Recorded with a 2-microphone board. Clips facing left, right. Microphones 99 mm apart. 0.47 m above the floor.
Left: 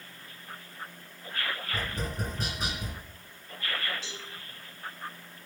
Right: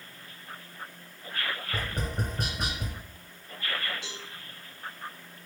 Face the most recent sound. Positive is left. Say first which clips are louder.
# right 1 dB
turn(degrees=-65)  # may be behind; listen again after turning